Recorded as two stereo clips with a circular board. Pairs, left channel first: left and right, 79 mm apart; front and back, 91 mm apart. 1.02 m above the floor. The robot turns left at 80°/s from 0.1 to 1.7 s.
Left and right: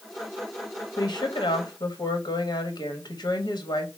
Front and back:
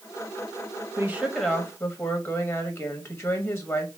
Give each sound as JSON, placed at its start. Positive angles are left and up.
{"t": 1.0, "sound": "a woman speaking", "azimuth_deg": 120, "distance_m": 1.2}